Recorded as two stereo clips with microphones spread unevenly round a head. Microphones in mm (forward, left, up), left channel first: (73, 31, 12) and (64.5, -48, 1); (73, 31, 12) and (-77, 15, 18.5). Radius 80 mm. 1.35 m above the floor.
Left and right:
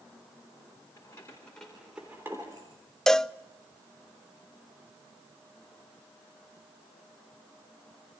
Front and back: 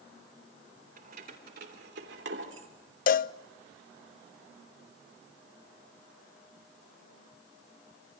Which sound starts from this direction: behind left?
Keys jangling, at 1.0 s.